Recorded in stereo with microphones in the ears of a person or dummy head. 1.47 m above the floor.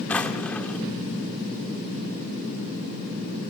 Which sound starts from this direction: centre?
A drawer, at 0.1 s.